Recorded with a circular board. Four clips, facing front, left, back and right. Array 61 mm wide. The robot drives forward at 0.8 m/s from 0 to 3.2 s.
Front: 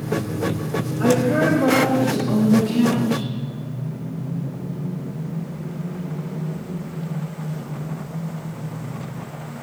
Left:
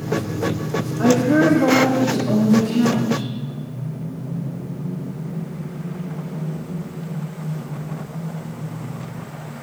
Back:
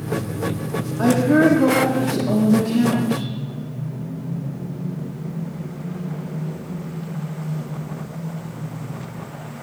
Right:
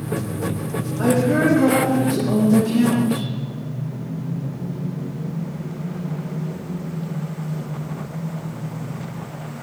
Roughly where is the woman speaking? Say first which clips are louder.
Left 2 dB, back 3 dB; behind.